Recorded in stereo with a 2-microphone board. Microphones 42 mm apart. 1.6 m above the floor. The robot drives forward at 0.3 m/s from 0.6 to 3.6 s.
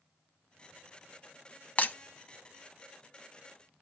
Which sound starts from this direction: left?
Breaking glass, at 1.8 s.